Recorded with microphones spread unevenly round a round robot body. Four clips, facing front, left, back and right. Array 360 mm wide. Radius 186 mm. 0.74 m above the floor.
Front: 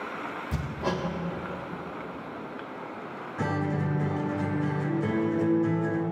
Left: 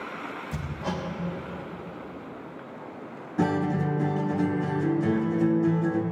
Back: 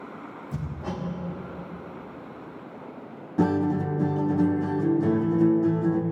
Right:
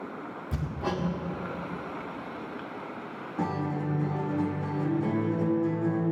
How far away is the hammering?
About 1.7 m.